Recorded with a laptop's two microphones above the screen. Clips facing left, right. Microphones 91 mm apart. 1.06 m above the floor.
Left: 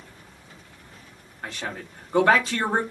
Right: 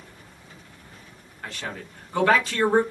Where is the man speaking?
25° left (ahead or behind), 1.1 m.